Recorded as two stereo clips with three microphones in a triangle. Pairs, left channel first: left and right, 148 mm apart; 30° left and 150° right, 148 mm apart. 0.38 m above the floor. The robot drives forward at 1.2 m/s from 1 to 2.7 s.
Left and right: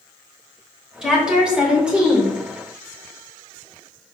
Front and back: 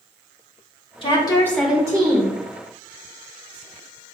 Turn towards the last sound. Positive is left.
turn(degrees=-175)